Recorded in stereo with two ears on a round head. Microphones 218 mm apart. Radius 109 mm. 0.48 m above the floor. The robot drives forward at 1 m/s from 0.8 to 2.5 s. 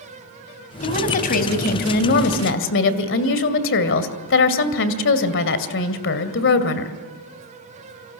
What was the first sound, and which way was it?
A woman speaking, 30° left (ahead or behind).